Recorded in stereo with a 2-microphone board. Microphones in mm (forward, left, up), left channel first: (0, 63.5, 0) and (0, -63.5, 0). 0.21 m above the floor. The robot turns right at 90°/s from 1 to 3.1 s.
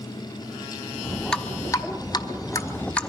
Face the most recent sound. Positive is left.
turn(degrees=5)  # may be behind; listen again after turning